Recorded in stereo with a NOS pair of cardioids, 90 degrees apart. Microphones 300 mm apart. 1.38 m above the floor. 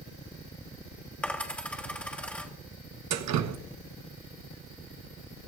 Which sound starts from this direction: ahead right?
Dripping, at 3.1 s.